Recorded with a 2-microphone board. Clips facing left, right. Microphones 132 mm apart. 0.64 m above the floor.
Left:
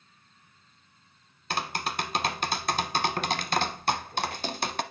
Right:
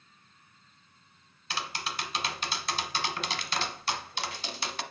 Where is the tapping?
50° left (ahead or behind), 0.7 m.